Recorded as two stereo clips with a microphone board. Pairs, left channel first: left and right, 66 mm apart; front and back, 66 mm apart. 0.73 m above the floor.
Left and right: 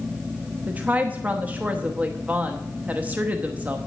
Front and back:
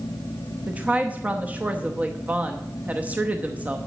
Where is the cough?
No cough in this recording.